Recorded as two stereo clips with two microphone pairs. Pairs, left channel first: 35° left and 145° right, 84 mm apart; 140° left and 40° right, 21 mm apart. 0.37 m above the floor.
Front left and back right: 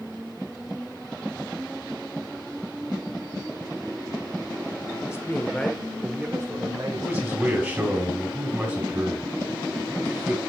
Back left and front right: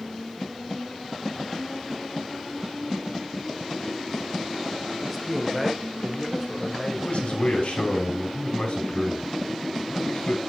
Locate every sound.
5.1 s a man speaking: 35° left, 1.2 m; by 8.0 s 135° right, 2 m
7.0 s a man speaking: 155° left, 3 m